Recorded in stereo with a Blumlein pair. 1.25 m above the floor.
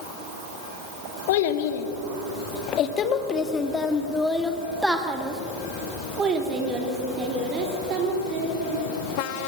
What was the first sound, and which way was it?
A child speaking, 55° left.